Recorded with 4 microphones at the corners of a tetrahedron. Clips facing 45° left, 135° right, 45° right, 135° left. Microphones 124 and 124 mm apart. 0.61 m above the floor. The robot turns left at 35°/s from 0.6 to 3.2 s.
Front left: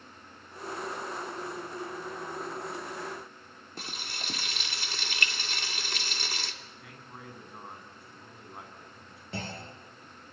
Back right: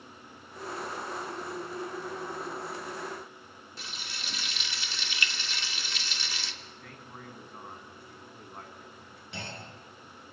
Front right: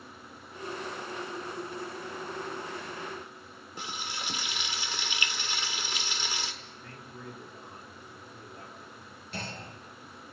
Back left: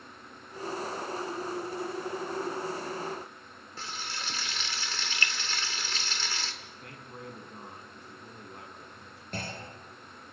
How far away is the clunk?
About 5 m.